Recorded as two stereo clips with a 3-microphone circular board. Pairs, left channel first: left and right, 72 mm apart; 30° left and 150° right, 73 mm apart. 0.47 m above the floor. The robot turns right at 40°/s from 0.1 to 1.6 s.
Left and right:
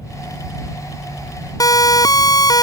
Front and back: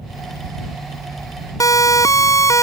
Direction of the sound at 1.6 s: 65° left.